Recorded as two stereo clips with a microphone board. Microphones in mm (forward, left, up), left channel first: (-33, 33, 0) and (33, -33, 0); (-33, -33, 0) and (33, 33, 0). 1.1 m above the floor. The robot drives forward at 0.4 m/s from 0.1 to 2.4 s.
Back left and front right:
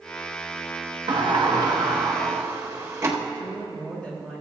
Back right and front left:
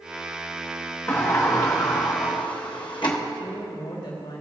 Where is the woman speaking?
145° right, 3.5 m.